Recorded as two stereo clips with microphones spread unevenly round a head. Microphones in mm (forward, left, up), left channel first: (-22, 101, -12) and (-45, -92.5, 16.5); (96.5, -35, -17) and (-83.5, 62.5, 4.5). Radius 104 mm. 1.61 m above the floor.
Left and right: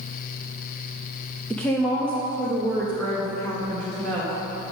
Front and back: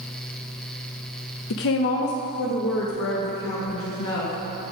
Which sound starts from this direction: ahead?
A woman speaking, at 1.5 s.